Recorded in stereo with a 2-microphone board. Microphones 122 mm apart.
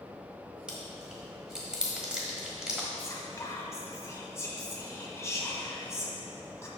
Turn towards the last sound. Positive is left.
turn(degrees=25)  # may be behind; listen again after turning